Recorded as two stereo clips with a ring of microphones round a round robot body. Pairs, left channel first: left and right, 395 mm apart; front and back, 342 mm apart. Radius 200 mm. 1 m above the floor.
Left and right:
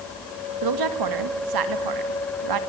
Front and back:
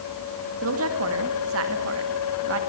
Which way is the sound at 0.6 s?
125° right.